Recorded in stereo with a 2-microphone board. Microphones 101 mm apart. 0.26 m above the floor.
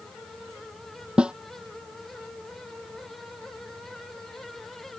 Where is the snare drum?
10° right (ahead or behind).